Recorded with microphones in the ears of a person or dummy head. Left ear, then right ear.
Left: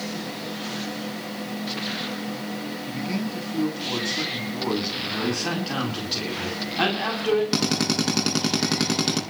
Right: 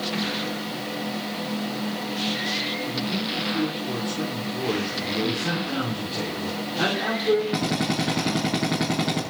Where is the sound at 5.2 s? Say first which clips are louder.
Even; 50° left (ahead or behind), 9 m.